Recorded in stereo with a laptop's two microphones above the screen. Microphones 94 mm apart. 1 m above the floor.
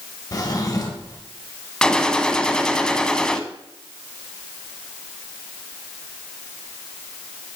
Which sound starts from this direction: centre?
A gunshot, at 1.8 s.